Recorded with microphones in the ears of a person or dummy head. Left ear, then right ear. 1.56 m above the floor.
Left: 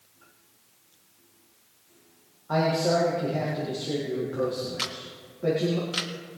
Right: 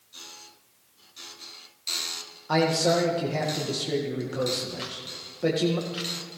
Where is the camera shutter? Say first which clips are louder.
Left 2 dB; 35° left (ahead or behind), 1.4 m.